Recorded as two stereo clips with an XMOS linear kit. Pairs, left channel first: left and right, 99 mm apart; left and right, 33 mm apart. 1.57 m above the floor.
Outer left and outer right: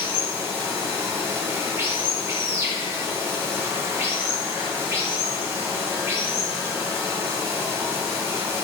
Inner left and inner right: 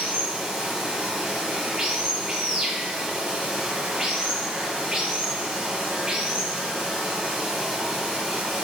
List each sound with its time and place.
0.0 s running water: 25° right (ahead or behind), 1.6 m